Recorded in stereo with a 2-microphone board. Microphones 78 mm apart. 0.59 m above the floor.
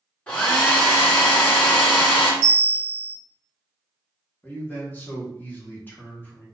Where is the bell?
35° left (ahead or behind), 1.9 m.